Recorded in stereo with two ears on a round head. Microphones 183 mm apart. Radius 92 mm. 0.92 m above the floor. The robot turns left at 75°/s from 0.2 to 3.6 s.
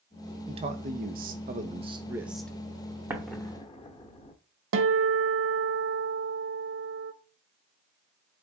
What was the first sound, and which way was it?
A man speaking, 35° right.